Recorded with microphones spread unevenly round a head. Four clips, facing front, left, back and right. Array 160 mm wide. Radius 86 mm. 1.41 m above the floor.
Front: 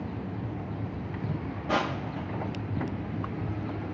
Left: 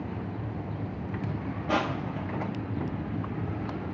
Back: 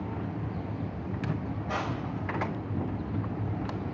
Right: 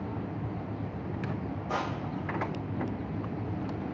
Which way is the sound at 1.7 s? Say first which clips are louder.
Left 5 dB, front 5 dB; 50° left.